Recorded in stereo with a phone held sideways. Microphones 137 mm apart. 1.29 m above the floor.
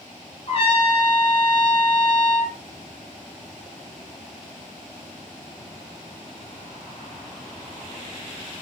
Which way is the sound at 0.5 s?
45° left (ahead or behind).